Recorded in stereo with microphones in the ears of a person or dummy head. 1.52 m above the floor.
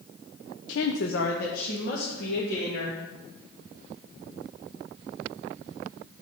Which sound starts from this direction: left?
A woman speaking, at 0.7 s.